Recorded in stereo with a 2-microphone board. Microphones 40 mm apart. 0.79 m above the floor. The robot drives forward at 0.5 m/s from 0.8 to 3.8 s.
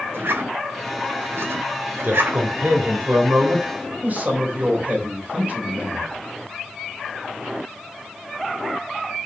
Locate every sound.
0.1 s a zipper: 70° right (ahead or behind), 2 m; by 2.4 s 90° right, 2.0 m
2.0 s a man speaking: 50° right (ahead or behind), 2.5 m; by 6.1 s 40° right (ahead or behind), 3 m